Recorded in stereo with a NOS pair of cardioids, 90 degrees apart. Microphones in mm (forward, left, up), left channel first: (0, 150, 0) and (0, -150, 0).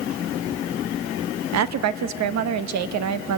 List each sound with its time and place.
1.5 s a woman speaking: 65° right, 1.3 m